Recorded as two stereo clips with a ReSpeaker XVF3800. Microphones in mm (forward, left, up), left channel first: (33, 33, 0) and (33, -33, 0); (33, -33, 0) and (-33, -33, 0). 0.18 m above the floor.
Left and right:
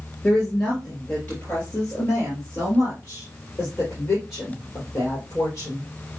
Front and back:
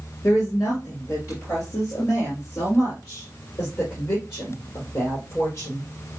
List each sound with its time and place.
0.2 s a woman speaking: 25° left, 2.5 m; by 5.9 s 50° left, 5.5 m